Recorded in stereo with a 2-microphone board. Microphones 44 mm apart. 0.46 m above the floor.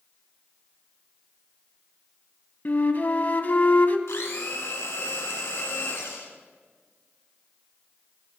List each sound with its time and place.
2.6 s a flute: 40° left (ahead or behind), 0.7 m
4.1 s a blender: 90° left, 2.0 m